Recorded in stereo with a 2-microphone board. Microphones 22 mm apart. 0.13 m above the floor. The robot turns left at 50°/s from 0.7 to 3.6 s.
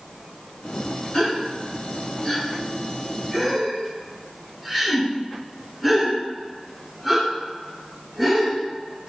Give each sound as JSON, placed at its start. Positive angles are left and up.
{"t": 1.1, "sound": "a gasp", "side_deg": 25, "distance_m": 1.1}